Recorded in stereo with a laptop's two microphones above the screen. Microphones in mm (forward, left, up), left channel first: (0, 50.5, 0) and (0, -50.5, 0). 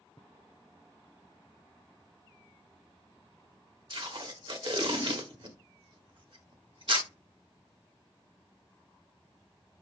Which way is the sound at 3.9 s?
60° right (ahead or behind).